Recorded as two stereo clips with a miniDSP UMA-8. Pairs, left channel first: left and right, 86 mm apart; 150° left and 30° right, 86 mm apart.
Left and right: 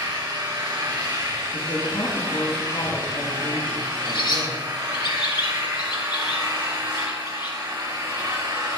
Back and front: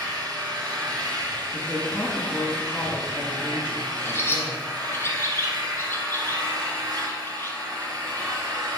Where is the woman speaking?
75° left, 5 m.